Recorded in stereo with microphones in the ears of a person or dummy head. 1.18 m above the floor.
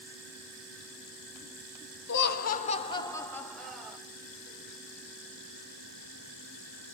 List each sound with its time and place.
2.1 s laughter: 65° left (ahead or behind), 1.8 m; by 4.0 s 5° right (ahead or behind), 3 m